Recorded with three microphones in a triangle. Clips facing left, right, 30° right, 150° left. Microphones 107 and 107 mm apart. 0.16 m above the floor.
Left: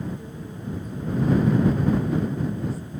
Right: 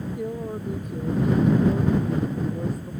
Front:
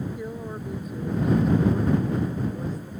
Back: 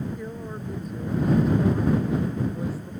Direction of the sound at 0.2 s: 110° right.